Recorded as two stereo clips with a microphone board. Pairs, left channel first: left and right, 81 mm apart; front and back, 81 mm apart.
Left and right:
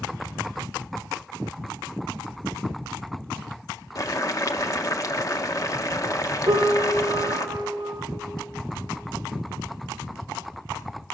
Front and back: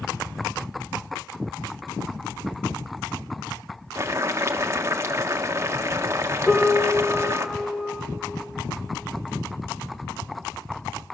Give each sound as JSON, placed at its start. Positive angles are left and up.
{"t": 4.0, "sound": "boiling", "azimuth_deg": 130, "distance_m": 1.3}
{"t": 6.5, "sound": "a piano", "azimuth_deg": -85, "distance_m": 1.8}